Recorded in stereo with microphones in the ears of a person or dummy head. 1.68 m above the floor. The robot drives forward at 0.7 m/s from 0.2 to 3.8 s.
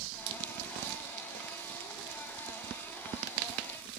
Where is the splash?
80° right, 1.6 m; by 0.4 s 75° right (ahead or behind), 1.6 m.